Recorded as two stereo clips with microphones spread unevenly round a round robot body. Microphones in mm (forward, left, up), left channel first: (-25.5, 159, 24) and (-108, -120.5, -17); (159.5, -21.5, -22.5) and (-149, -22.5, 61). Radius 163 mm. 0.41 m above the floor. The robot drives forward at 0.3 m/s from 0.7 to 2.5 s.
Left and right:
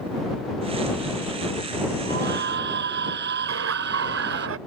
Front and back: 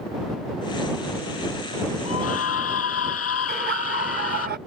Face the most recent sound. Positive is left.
turn(degrees=-115)